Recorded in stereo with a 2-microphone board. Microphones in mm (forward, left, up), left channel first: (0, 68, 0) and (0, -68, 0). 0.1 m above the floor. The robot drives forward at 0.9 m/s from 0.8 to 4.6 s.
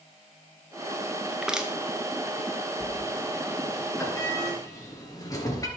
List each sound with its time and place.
1.3 s crushing: 5° right (ahead or behind), 0.9 m
2.8 s a sliding door: 15° left (ahead or behind), 3.5 m; by 5.7 s 25° left (ahead or behind), 2 m